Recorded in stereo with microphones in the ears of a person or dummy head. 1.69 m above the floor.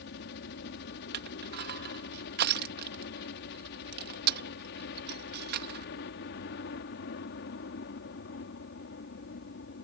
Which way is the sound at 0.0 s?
60° left (ahead or behind).